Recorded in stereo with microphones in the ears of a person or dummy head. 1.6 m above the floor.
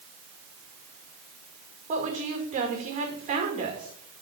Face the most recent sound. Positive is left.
turn(degrees=-40)  # may be behind; listen again after turning